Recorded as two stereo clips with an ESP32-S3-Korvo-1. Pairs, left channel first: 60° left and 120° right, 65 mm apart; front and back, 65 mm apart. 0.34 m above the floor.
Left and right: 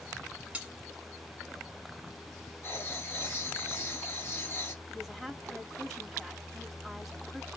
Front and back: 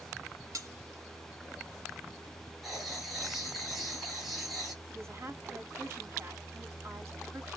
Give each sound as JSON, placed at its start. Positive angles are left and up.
{"t": 0.5, "sound": "cutlery clinking", "azimuth_deg": 175, "distance_m": 1.3}
{"t": 2.6, "sound": "writing", "azimuth_deg": 95, "distance_m": 1.6}
{"t": 4.9, "sound": "a woman speaking", "azimuth_deg": 150, "distance_m": 1.6}